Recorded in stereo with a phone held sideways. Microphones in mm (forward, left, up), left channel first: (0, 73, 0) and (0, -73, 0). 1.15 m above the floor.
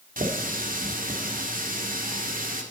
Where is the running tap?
70° right (ahead or behind), 1.9 m.